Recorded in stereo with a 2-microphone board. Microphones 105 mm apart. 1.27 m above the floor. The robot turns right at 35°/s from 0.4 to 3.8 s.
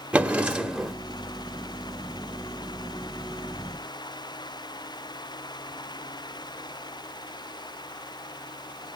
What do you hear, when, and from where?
0.1 s a drawer: 10° right (ahead or behind), 1.1 m; by 0.9 s centre (ahead or behind), 1.1 m